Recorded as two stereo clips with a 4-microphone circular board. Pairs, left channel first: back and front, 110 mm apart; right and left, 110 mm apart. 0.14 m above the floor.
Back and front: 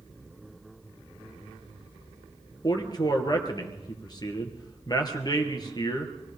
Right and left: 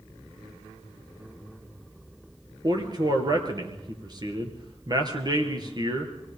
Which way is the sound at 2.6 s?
135° left.